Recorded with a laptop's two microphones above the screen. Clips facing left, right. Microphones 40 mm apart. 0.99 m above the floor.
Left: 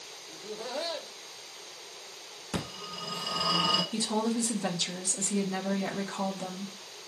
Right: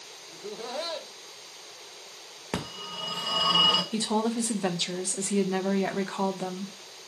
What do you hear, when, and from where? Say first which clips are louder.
0.3 s laughter: right 1 dB; 10° right (ahead or behind), 0.8 m
2.5 s a phone ringing: right 2 dB; 50° right (ahead or behind), 0.8 m
3.9 s a woman speaking: right 2 dB; 20° right (ahead or behind), 0.6 m